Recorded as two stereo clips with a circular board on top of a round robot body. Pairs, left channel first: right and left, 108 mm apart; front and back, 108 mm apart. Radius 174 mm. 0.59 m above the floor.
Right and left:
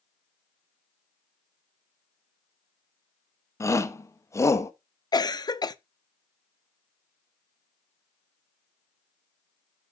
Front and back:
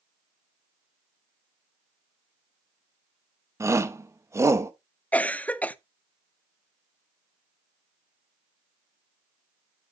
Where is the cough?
70° right, 0.9 m.